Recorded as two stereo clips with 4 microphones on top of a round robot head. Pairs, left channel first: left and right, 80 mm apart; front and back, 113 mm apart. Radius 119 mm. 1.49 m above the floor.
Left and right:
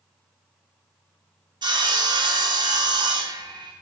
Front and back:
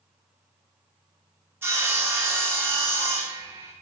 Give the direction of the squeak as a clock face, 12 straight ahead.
I don't hear a squeak.